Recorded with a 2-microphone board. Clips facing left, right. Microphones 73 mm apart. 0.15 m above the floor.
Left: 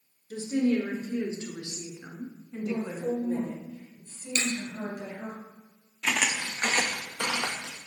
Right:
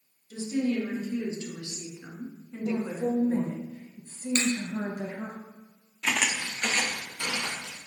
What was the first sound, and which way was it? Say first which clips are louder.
A woman speaking: left 2 dB; 45° left (ahead or behind).